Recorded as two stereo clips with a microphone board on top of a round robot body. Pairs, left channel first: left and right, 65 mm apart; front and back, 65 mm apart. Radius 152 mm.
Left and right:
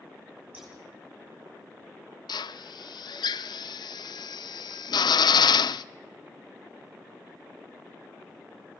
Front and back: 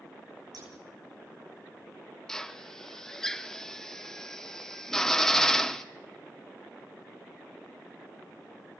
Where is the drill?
80° left, 0.6 m.